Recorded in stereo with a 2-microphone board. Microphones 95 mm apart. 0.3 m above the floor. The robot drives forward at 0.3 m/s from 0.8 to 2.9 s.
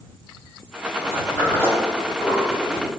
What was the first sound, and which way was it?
A sliding door, 30° left (ahead or behind).